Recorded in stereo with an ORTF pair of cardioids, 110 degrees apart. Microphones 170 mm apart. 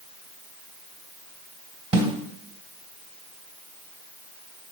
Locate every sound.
1.9 s a snare drum: 30° right, 2.5 m